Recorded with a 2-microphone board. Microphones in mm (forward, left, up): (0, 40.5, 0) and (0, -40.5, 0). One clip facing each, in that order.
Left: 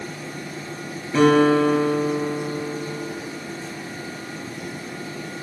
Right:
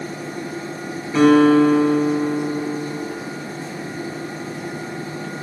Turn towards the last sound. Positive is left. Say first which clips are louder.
# right 3 dB
turn(degrees=-5)  # may be behind; listen again after turning